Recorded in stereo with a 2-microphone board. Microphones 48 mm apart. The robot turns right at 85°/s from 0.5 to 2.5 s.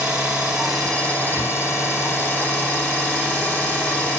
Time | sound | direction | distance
0.0 | an engine running | 20° right | 1.7 m